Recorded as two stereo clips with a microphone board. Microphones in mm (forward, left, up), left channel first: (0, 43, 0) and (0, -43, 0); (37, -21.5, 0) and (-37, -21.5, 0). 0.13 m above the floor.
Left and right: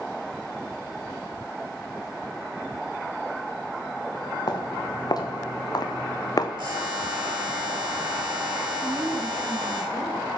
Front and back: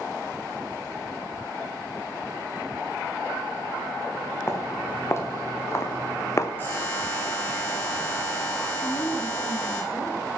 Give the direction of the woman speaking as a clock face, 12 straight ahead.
1 o'clock.